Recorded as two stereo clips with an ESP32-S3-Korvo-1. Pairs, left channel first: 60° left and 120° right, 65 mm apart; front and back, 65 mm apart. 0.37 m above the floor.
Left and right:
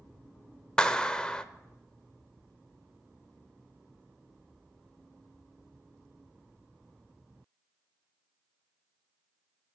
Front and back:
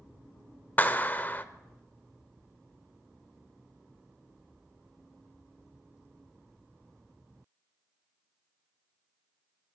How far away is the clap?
About 0.6 m.